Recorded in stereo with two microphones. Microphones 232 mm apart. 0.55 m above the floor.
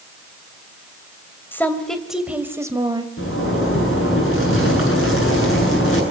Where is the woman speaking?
10° left (ahead or behind), 2.5 m; by 3.1 s 20° right (ahead or behind), 2.5 m.